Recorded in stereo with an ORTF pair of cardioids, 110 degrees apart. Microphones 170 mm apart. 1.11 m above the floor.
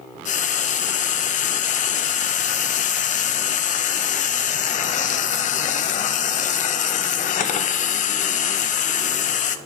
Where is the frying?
50° left, 0.6 m.